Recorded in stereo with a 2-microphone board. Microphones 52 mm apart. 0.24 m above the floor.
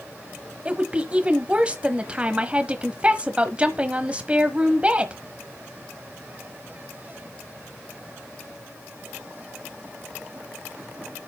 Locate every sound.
0.7 s a woman speaking: 25° right (ahead or behind), 1.0 m